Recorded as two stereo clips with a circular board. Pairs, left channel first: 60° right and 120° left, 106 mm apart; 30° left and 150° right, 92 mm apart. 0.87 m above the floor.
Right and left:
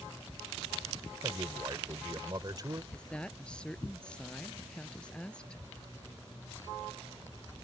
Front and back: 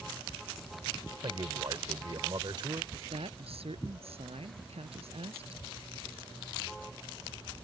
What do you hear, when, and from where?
1.2 s a man speaking: 175° left
2.9 s a woman speaking: 140° right